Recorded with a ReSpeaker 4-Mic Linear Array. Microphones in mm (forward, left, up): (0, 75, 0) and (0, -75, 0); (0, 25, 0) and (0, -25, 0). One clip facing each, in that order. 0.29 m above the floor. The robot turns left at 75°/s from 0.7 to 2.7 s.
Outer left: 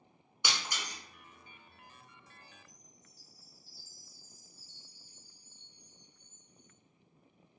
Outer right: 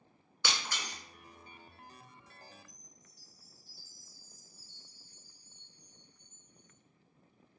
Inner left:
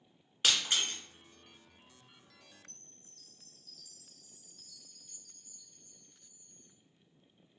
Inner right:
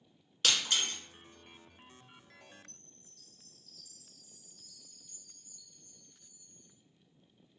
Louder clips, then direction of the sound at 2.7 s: Even, inner right 1 dB; 35° left (ahead or behind).